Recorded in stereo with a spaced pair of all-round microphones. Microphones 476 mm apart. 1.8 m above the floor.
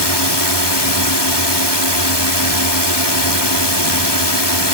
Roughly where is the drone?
Left.